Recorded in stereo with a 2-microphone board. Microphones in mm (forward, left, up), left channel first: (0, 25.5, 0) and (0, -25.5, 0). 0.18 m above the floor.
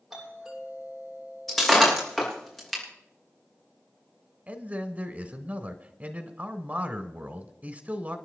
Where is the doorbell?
5° right (ahead or behind), 9 m.